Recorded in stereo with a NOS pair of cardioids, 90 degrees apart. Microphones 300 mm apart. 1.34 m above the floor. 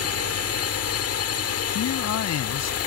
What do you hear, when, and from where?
0.0 s a drone: 60° left
1.8 s a man speaking: 65° left